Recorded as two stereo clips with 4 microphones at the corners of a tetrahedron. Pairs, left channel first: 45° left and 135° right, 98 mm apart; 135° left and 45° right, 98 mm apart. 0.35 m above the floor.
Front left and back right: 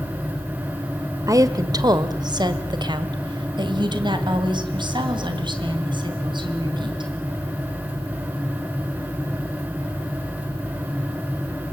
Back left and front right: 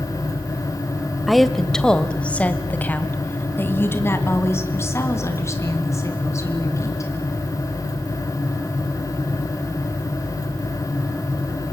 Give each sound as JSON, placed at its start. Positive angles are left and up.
{"t": 1.3, "sound": "a woman speaking", "azimuth_deg": -135, "distance_m": 1.2}